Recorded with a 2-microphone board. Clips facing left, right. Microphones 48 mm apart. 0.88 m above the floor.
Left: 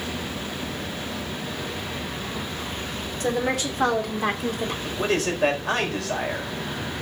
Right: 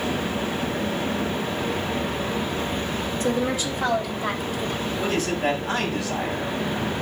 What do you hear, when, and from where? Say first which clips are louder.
3.2 s a woman speaking: left 1 dB; 65° left (ahead or behind), 3.5 m; by 4.7 s 75° left (ahead or behind), 3 m
4.8 s a man speaking: left 2 dB; 80° left, 4.5 m